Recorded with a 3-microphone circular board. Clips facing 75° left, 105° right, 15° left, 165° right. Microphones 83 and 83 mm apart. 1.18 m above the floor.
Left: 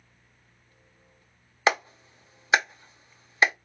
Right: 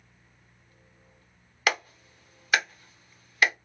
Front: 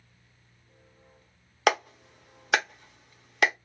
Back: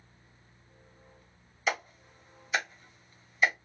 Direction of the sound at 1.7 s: 15° left.